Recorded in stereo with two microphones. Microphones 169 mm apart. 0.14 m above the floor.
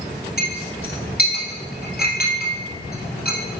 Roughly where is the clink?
Left.